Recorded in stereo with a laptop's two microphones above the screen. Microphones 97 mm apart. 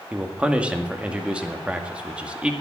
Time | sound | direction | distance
0.1 | a man speaking | 10° right (ahead or behind) | 1.9 m